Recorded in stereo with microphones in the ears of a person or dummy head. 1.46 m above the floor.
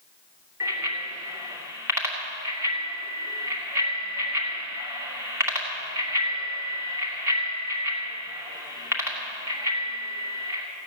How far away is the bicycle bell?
About 2.5 m.